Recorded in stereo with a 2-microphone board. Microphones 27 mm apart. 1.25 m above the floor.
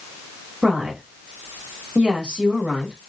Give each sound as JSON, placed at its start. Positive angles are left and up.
{"t": 0.6, "sound": "a woman speaking", "side_deg": -40, "distance_m": 1.4}